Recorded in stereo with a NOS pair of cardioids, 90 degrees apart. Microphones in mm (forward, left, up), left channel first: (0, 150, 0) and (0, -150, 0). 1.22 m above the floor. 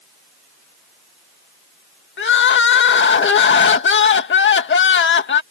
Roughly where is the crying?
Ahead left.